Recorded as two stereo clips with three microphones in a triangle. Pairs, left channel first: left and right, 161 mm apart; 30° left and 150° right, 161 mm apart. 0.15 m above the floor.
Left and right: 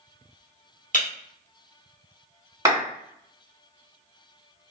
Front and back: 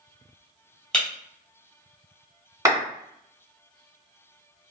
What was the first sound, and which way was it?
Breaking glass, 115° left.